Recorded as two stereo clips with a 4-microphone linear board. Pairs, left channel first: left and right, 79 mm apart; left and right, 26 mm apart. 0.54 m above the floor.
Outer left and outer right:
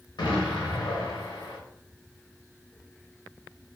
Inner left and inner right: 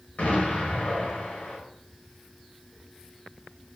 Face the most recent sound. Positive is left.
turn(degrees=75)  # may be behind; listen again after turning